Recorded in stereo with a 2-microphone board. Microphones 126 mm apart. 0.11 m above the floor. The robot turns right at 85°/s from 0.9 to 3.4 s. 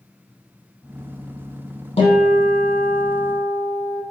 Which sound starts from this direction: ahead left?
A guitar, at 2.0 s.